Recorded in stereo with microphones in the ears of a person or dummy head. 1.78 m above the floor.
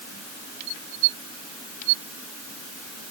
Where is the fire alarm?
I don't hear a fire alarm.